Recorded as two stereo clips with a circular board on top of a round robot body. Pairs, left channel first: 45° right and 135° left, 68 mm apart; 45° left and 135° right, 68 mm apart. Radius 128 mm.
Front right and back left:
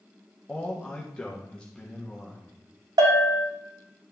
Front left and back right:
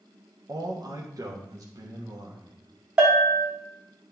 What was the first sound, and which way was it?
A man speaking, 120° right.